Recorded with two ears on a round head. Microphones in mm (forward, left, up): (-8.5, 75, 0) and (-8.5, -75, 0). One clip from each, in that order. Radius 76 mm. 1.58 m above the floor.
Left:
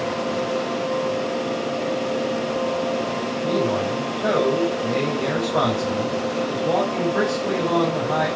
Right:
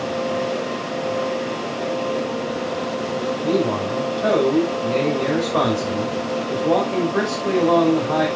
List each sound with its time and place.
3.4 s a man speaking: 35° right (ahead or behind), 6 m